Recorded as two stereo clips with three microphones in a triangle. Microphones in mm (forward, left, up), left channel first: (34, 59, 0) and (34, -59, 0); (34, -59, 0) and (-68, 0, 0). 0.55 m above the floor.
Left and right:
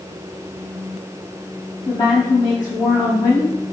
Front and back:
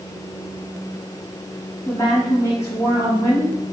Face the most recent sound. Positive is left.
turn(degrees=35)